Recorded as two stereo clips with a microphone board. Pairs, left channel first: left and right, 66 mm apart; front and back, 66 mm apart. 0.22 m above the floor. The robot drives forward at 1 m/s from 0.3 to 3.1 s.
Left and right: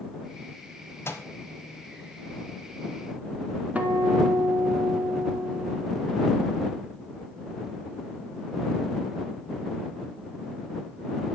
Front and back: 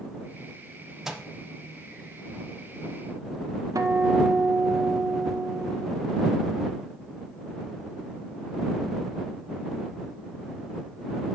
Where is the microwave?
100° left, 0.9 m; by 1.3 s 120° left, 0.9 m.